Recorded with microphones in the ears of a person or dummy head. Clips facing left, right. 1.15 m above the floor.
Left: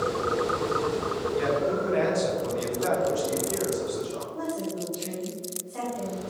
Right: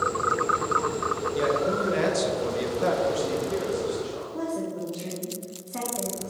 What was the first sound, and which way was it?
A man speaking, 50° right (ahead or behind).